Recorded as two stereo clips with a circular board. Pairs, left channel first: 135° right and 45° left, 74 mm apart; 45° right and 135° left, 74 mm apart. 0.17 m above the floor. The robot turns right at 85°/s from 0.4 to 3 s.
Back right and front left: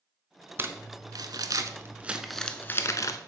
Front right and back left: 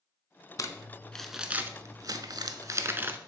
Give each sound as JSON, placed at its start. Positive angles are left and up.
{"t": 0.6, "sound": "crumpling", "azimuth_deg": -10, "distance_m": 0.5}